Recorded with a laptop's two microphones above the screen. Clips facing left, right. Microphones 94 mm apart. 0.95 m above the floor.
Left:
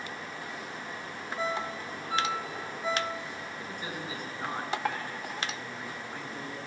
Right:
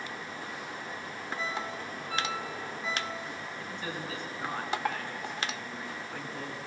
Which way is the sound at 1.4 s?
30° left (ahead or behind).